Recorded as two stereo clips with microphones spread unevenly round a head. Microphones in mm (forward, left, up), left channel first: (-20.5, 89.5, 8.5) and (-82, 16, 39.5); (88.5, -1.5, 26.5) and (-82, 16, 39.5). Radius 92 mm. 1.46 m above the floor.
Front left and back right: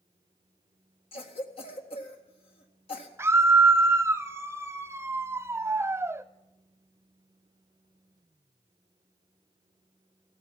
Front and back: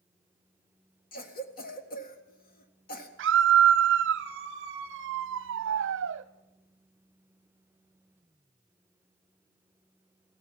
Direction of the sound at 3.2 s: 155° left.